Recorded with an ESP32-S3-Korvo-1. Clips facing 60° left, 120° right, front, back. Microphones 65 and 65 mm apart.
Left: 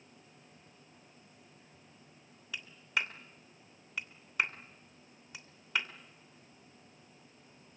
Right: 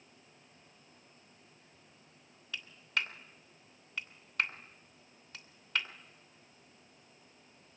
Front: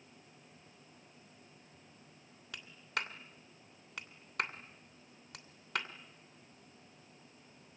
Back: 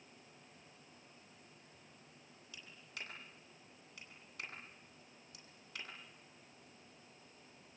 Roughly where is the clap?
Ahead.